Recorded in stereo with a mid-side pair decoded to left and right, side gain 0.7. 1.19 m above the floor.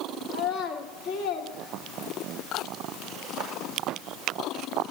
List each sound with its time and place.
0.3 s a child speaking: 65° left, 2 m